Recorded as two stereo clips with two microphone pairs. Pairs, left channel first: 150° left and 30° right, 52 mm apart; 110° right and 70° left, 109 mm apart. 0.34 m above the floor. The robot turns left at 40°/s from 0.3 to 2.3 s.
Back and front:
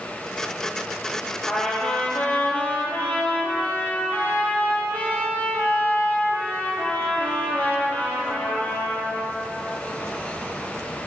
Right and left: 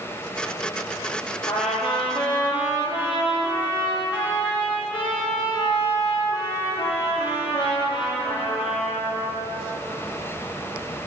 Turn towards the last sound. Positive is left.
turn(degrees=-155)